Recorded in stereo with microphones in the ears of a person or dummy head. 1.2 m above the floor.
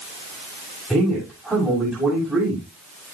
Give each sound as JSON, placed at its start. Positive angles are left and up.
{"t": 0.9, "sound": "a man speaking", "side_deg": -10, "distance_m": 7.5}